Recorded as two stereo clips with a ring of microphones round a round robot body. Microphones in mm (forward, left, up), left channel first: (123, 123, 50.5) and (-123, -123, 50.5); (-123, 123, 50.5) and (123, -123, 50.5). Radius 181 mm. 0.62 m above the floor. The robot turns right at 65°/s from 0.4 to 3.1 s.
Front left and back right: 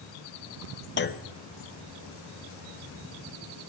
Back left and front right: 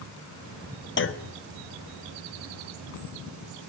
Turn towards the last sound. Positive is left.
turn(degrees=-130)